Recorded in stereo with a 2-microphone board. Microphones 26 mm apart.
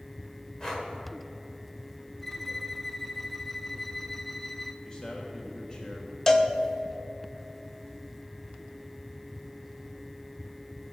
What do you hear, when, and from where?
0.6 s breathing: 20° left (ahead or behind), 1.9 m
2.2 s a violin: 10° left (ahead or behind), 0.6 m
4.8 s a man speaking: 30° left (ahead or behind), 1.1 m
6.3 s a cowbell: 20° left (ahead or behind), 0.9 m